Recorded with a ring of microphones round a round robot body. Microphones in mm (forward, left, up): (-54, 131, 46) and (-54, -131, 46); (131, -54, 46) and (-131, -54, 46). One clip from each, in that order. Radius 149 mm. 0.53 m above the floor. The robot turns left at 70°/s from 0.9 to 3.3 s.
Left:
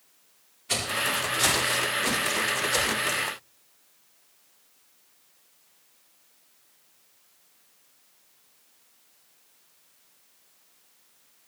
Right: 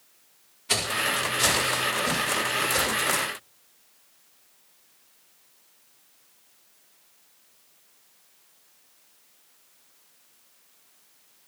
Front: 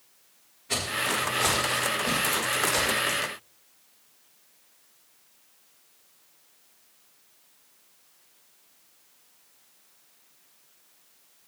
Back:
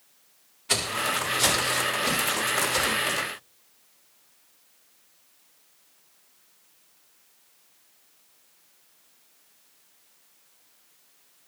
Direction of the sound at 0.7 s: 165° right.